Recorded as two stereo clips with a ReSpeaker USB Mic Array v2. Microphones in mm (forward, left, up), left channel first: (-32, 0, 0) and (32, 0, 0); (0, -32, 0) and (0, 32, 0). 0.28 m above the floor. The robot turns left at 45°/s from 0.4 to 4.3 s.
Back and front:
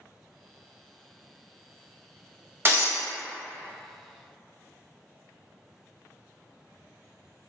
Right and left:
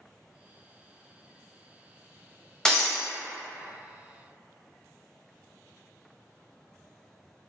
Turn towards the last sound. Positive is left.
turn(degrees=-85)